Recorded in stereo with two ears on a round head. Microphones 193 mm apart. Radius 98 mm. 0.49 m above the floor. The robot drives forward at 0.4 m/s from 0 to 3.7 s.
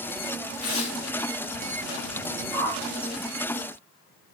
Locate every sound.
0.6 s tearing paper: 80° left, 2.5 m; by 1.0 s 85° left, 2.5 m
2.5 s a whoosh: 10° right (ahead or behind), 2 m